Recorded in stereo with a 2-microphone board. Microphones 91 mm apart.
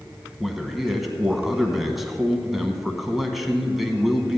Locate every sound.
0.4 s a man speaking: centre (ahead or behind), 1.0 m